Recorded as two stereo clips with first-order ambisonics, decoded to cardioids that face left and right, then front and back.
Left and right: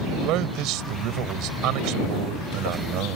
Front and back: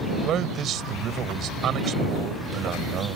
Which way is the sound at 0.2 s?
125° right.